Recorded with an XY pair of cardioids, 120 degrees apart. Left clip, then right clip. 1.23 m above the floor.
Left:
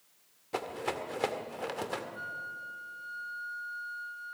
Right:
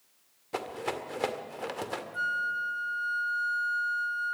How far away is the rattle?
About 1.8 m.